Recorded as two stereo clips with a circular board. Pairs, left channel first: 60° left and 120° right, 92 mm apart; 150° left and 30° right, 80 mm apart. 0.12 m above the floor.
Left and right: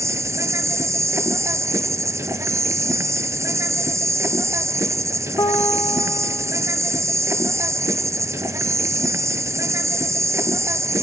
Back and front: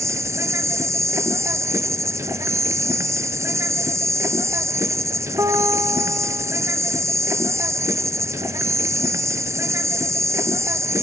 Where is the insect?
70° right, 0.8 m.